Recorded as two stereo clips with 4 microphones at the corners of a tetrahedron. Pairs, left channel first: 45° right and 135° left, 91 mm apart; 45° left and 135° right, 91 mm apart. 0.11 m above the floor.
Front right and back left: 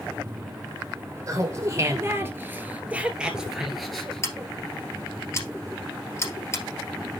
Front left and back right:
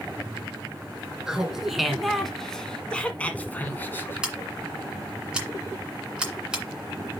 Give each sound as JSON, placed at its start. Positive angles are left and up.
{"t": 1.3, "sound": "laughter", "azimuth_deg": 145, "distance_m": 1.7}
{"t": 4.2, "sound": "scissors", "azimuth_deg": -65, "distance_m": 2.0}